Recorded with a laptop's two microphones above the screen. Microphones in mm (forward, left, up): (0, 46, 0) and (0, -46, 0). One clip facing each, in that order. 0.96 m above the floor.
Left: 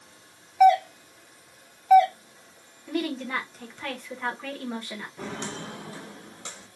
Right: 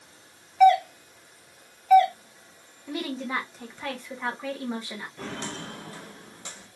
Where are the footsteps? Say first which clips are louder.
Left 1 dB; 5° left (ahead or behind), 1.0 m; by 6.7 s 20° left (ahead or behind), 2 m.